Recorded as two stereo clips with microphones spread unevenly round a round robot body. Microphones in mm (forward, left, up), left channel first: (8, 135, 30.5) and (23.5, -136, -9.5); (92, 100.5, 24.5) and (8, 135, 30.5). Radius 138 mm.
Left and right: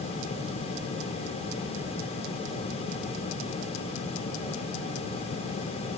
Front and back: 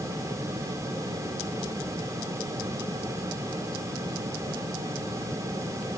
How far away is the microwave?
I don't hear a microwave.